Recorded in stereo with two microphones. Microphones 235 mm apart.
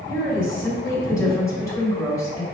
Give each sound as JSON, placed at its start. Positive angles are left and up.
{"t": 0.1, "sound": "a woman speaking", "side_deg": 10, "distance_m": 1.9}